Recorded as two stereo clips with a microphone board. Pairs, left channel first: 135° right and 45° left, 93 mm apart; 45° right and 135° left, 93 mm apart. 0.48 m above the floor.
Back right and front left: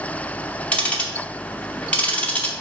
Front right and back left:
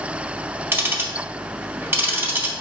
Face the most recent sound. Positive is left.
turn(degrees=165)